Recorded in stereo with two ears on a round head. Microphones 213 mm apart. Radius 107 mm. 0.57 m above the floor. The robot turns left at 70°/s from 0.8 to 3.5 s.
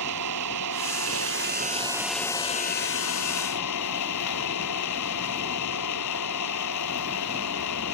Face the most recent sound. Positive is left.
turn(degrees=85)